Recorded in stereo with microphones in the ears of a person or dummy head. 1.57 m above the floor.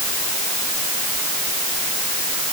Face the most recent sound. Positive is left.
No sound to turn to.